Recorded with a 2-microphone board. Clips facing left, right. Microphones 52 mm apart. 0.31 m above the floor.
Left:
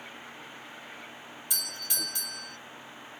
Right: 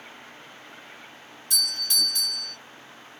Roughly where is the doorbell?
Centre.